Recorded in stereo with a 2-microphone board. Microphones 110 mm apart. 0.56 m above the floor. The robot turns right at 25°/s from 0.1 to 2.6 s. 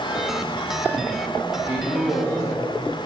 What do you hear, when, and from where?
1.7 s a man speaking: 5° right (ahead or behind), 4 m; by 2.6 s 15° left (ahead or behind), 4 m